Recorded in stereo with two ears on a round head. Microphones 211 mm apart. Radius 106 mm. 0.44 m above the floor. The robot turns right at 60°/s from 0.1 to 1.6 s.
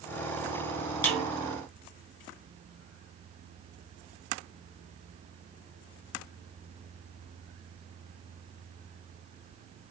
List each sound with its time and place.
1.0 s a snare drum: 10° left (ahead or behind), 6.5 m; by 1.3 s 5° right (ahead or behind), 6.5 m